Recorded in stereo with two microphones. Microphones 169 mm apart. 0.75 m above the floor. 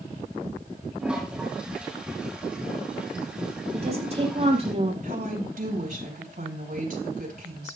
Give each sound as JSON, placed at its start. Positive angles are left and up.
{"t": 1.0, "sound": "a toilet flushing", "side_deg": -5, "distance_m": 4.5}
{"t": 3.7, "sound": "a woman speaking", "side_deg": -40, "distance_m": 5.0}
{"t": 5.0, "sound": "a woman speaking", "side_deg": -60, "distance_m": 5.5}